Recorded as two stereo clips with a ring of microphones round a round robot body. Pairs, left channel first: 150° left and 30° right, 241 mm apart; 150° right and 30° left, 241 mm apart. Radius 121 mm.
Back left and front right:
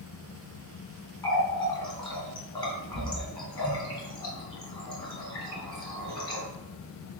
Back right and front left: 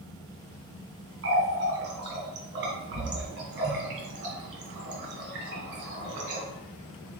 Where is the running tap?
75° left, 1.4 m.